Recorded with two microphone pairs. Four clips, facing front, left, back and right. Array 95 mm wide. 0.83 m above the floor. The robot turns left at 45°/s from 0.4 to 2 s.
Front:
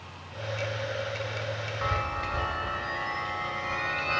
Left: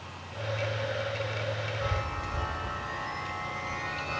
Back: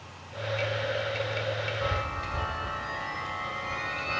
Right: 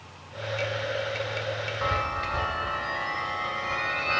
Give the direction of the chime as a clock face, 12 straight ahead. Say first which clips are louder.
Right 9 dB, front 1 dB; 2 o'clock.